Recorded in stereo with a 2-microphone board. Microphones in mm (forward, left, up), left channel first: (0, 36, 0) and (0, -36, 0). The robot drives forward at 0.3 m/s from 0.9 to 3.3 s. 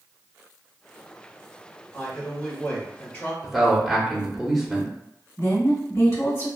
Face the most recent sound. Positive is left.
turn(degrees=45)  # may be behind; listen again after turning